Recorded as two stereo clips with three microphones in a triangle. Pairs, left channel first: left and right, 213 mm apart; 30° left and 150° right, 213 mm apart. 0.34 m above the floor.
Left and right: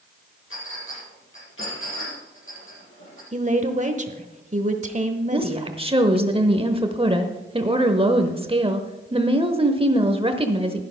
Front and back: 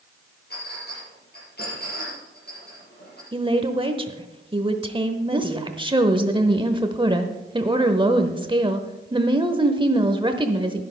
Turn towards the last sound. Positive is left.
turn(degrees=-115)